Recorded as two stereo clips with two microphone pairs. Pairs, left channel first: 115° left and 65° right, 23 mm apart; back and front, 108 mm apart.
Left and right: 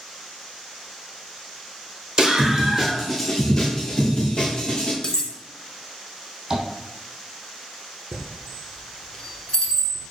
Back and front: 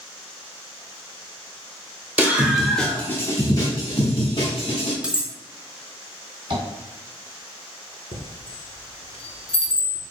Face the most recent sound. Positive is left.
turn(degrees=170)